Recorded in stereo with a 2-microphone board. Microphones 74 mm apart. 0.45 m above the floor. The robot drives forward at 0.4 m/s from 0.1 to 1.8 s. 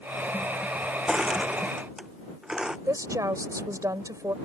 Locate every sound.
1.1 s crushing: 10° right (ahead or behind)
2.9 s a woman speaking: 50° right (ahead or behind)